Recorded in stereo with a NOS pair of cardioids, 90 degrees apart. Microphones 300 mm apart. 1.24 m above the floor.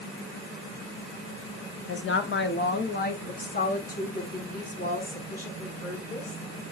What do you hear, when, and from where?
1.9 s a woman speaking: 45° left, 1.2 m; by 6.4 s 20° left, 3.5 m